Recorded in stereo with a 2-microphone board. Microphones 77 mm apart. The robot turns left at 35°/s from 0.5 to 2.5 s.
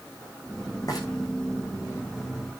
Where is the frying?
45° left (ahead or behind), 9.5 m; by 1.0 s 50° left (ahead or behind), 9.5 m.